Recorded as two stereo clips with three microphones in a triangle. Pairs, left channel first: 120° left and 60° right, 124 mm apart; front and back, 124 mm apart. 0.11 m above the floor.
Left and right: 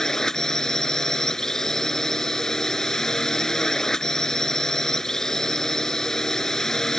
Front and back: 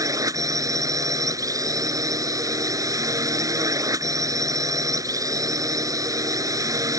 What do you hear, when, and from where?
0.0 s a drone: 160° right